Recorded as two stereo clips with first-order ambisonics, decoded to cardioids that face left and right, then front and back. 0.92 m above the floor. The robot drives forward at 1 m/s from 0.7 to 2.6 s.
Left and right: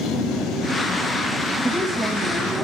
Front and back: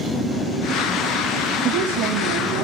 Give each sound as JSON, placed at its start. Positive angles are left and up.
{"t": 1.6, "sound": "a woman speaking", "azimuth_deg": -175, "distance_m": 1.0}